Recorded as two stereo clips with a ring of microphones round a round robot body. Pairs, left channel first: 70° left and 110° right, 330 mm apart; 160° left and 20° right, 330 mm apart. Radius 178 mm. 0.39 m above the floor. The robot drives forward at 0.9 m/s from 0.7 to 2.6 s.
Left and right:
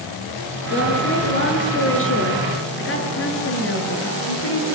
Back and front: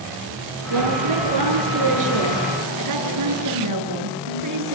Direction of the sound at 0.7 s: 10° left.